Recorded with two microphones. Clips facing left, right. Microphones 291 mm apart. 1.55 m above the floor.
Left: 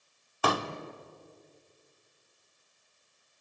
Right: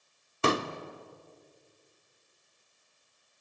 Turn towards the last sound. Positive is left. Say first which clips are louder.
# right 3 dB
turn(degrees=-25)  # may be behind; listen again after turning